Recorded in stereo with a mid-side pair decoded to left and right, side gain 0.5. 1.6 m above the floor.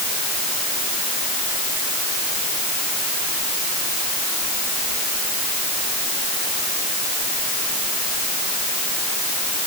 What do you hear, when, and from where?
Only background noise.